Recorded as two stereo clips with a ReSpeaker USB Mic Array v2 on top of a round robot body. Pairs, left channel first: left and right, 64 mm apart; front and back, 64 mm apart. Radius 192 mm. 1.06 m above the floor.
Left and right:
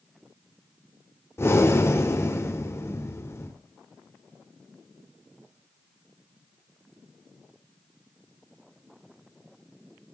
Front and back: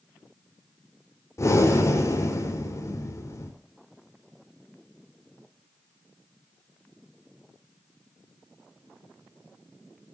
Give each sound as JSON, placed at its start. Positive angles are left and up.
{"t": 1.4, "sound": "breathing", "azimuth_deg": 40, "distance_m": 5.0}